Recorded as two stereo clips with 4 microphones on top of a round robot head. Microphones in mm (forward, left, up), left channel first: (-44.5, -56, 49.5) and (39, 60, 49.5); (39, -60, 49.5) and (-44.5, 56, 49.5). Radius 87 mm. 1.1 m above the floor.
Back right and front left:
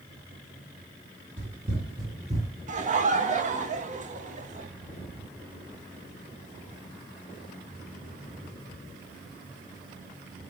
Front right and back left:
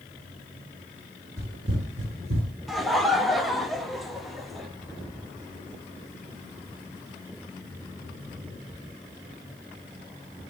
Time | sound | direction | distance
1.4 | running footsteps | 60° left | 1.3 m
2.7 | laughter | 35° left | 1.0 m